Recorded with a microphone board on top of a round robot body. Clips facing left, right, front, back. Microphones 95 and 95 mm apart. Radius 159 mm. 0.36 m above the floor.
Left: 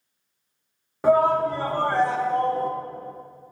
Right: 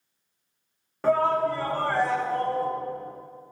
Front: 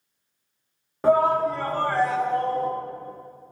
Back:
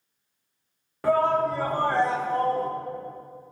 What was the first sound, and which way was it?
A shout, 30° left.